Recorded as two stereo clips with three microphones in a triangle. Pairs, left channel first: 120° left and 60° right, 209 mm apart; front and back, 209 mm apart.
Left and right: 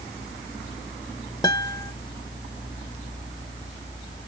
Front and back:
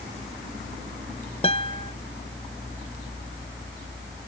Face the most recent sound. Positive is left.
turn(degrees=50)